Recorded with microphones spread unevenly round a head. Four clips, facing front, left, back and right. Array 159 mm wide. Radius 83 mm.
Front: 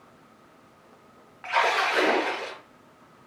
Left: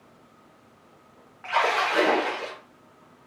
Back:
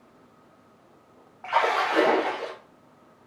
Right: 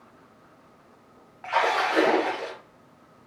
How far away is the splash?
About 2.0 m.